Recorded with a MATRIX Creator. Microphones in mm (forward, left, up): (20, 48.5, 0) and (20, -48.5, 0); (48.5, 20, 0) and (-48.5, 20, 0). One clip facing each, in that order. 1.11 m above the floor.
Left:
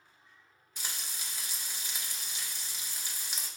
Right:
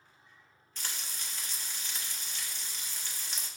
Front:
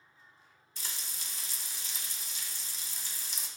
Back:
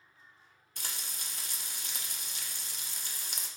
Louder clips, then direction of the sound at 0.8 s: Even, back 2 dB; 170° left.